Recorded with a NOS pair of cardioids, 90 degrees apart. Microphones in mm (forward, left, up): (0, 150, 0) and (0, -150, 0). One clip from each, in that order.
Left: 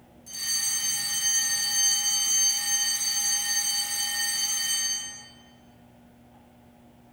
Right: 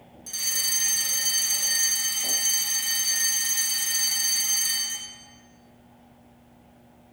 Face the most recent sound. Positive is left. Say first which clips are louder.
# right 2 dB
turn(degrees=-60)